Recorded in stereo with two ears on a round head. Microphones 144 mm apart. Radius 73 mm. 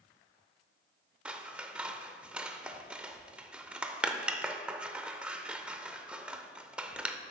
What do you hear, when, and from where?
1.2 s scissors: 10° right (ahead or behind), 0.6 m